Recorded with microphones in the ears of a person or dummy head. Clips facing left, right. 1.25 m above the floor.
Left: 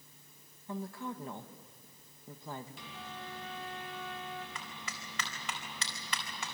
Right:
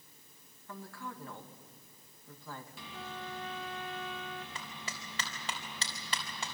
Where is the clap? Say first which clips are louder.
Right 1 dB; 35° right (ahead or behind), 4 m.